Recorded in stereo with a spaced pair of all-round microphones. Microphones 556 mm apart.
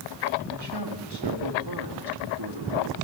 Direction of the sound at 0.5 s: 45° right (ahead or behind).